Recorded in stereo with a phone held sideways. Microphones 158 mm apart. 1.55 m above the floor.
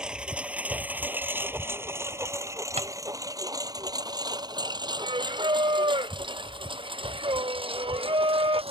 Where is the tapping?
45° right (ahead or behind).